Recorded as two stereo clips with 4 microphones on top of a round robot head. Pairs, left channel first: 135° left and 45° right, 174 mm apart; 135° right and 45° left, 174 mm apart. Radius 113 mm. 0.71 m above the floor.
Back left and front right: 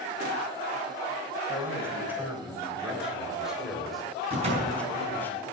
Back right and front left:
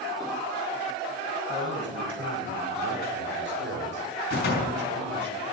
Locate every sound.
1.5 s a man speaking: 35° left, 5 m; by 5.3 s 55° left, 3 m
4.3 s a door slam: 100° right, 6 m